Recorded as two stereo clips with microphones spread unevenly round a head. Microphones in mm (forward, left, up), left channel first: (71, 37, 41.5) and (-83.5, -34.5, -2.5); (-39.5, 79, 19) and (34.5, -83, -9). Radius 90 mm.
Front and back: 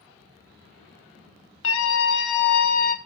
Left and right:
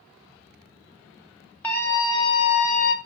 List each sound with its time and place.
1.6 s a scream: 30° left, 2.5 m; by 3.0 s 70° left, 1.7 m